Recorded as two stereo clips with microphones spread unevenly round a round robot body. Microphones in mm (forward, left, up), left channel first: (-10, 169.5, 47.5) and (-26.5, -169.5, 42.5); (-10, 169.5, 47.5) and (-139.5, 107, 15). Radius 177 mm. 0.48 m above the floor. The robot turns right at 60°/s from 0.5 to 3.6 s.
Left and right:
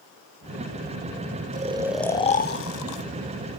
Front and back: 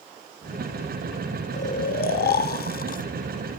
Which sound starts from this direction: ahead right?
Snoring, at 1.5 s.